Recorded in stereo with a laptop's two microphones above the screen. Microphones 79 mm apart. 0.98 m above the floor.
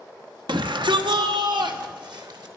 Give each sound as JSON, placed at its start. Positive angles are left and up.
{"t": 0.5, "sound": "a shout", "side_deg": -80, "distance_m": 1.0}